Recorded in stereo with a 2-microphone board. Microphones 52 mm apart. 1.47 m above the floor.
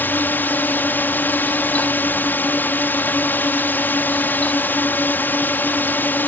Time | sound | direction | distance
0.0 | a drone | 40° left (ahead or behind) | ?